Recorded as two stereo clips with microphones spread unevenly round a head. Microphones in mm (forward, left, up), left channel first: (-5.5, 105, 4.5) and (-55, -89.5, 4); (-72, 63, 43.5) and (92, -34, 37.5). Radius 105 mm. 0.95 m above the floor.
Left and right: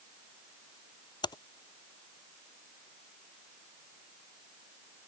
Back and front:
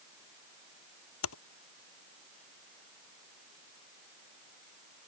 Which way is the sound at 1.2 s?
145° left.